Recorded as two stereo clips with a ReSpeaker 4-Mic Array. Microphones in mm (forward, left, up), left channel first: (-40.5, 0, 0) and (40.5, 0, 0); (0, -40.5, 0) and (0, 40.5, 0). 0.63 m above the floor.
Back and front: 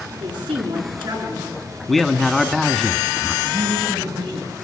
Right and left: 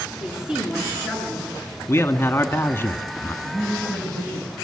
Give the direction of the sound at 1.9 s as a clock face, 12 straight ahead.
3 o'clock.